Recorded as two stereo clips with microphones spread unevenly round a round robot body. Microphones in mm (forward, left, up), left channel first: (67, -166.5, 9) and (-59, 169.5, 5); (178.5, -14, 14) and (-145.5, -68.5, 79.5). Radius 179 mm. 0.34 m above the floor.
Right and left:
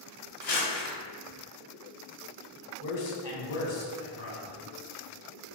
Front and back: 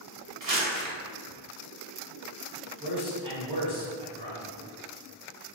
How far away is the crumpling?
About 1.9 m.